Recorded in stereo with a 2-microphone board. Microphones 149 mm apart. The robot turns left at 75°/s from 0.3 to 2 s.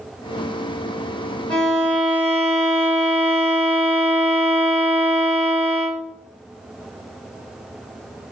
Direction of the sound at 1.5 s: 10° left (ahead or behind).